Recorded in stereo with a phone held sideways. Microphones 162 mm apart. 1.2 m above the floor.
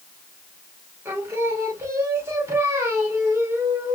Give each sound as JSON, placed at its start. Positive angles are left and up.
{"t": 1.1, "sound": "singing", "side_deg": -15, "distance_m": 1.5}